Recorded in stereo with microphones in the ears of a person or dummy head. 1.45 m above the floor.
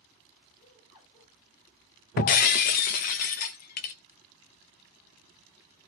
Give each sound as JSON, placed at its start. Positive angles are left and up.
{"t": 0.6, "sound": "laughter", "side_deg": 45, "distance_m": 8.0}
{"t": 2.2, "sound": "breaking glass", "side_deg": 40, "distance_m": 0.7}